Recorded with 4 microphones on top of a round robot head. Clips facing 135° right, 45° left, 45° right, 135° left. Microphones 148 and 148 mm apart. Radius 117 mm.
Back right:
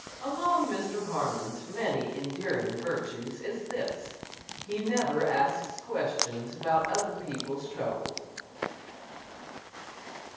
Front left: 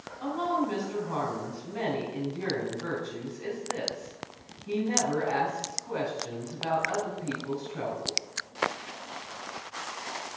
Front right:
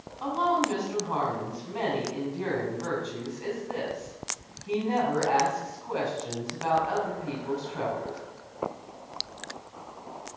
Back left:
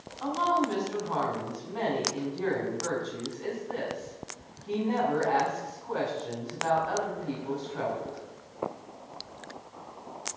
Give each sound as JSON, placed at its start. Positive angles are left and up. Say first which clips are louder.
{"t": 0.2, "sound": "a woman speaking", "louder": "even, front right 1 dB", "azimuth_deg": 35, "distance_m": 5.0}